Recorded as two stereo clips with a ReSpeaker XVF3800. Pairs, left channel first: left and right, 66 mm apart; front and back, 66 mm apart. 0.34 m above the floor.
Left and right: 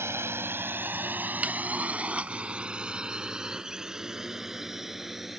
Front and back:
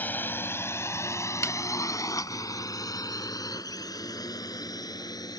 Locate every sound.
0.0 s a drone: 55° right; by 5.4 s 5° right
1.4 s a snare drum: 25° right